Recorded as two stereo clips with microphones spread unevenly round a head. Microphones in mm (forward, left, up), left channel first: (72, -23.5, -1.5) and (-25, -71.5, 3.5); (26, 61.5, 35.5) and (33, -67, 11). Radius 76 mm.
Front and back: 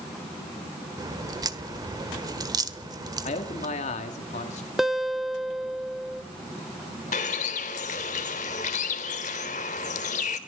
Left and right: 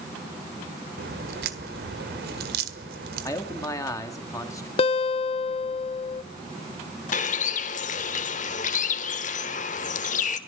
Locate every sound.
1.0 s a crack: 100° right, 1.6 m
3.2 s a man speaking: 25° left, 2 m
4.8 s a guitar: 115° left, 0.7 m
7.1 s a bird: 70° left, 1.5 m